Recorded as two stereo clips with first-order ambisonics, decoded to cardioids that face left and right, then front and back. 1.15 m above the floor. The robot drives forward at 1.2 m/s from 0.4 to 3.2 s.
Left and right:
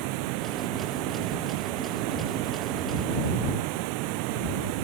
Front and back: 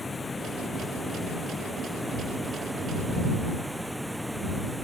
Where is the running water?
80° right; by 4.8 s 90° right.